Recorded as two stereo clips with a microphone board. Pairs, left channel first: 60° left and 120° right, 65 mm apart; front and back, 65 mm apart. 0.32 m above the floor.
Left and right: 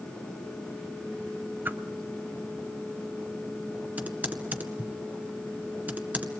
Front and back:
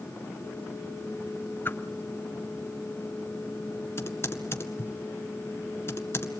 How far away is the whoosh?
About 0.8 m.